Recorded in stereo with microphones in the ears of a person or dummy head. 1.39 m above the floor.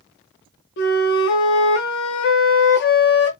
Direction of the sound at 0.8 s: 55° left (ahead or behind).